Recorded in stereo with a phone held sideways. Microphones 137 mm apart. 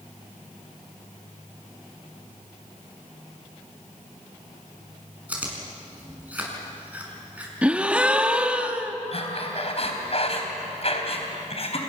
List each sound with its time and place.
5.3 s chewing: 10° right (ahead or behind), 6 m
7.6 s a gasp: 10° right (ahead or behind), 1.3 m
9.1 s breathing: 50° left (ahead or behind), 3.5 m